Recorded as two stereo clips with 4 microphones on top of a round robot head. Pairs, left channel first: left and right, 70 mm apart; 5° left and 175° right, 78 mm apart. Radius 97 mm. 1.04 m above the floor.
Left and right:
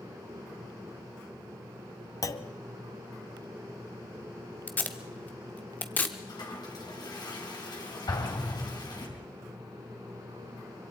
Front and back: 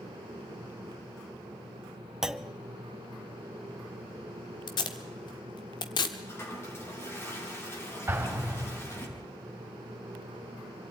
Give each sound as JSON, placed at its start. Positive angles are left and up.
{"t": 2.2, "sound": "a clunk", "azimuth_deg": 100, "distance_m": 1.0}
{"t": 4.7, "sound": "tape being pulled", "azimuth_deg": 25, "distance_m": 0.9}
{"t": 6.3, "sound": "a toilet flushing", "azimuth_deg": 60, "distance_m": 4.0}
{"t": 8.1, "sound": "an explosion", "azimuth_deg": 120, "distance_m": 3.5}